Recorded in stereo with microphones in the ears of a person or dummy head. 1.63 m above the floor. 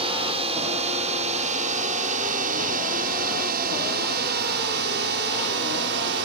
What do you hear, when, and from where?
0.0 s a drone: 25° right (ahead or behind); by 6.3 s 60° right (ahead or behind)